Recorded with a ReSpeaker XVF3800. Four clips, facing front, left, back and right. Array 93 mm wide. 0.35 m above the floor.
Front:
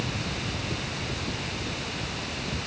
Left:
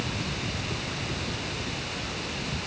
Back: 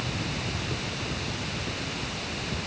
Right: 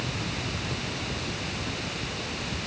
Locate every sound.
Only background noise.